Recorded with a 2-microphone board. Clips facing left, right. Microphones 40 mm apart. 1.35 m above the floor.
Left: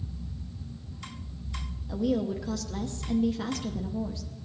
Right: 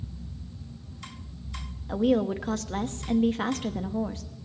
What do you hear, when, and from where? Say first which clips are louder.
1.9 s a woman speaking: right 4 dB; 45° right (ahead or behind), 0.8 m